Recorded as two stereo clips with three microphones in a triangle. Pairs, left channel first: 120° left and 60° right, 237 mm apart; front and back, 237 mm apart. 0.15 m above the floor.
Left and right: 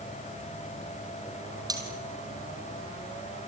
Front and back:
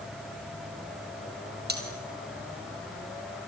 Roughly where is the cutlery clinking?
Behind right.